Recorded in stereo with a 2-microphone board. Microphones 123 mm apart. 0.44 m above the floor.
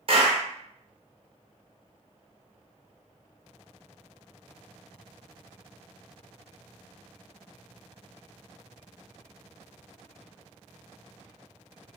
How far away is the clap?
About 0.9 m.